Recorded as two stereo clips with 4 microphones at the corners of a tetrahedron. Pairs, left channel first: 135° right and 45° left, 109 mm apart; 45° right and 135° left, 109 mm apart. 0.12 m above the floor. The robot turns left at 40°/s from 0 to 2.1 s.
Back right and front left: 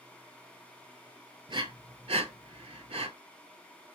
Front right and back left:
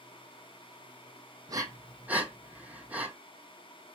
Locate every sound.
1.5 s breathing: 85° left, 0.5 m; by 3.1 s 60° left, 0.5 m